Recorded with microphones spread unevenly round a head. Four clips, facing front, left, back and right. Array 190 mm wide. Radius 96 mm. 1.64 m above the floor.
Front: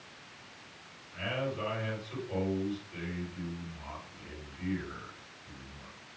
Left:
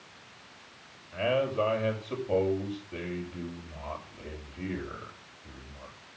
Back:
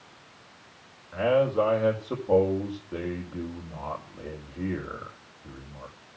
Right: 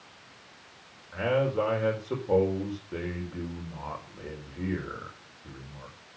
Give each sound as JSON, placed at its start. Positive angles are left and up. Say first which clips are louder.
{"t": 1.1, "sound": "a man speaking", "louder": "right 1 dB, back 13 dB", "azimuth_deg": -150, "distance_m": 5.5}